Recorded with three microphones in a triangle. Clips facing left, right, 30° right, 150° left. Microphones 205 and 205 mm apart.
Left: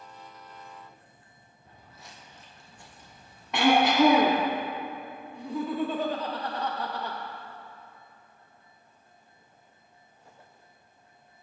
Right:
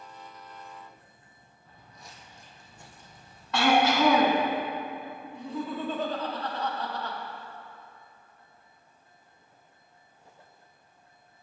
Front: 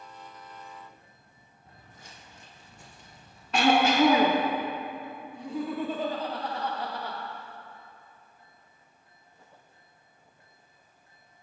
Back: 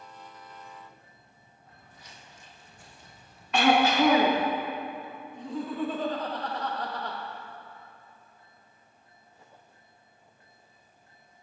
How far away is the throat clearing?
About 1.0 m.